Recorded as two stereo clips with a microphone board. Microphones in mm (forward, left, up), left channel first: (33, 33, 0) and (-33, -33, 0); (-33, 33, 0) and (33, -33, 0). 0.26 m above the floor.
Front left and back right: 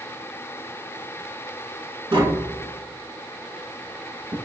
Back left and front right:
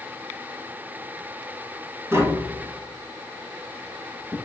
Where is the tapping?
105° right, 0.7 m.